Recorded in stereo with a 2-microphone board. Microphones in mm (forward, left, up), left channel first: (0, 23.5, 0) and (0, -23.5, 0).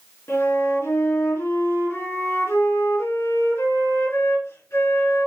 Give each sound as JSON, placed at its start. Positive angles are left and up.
{"t": 0.3, "sound": "a flute", "side_deg": 70, "distance_m": 4.0}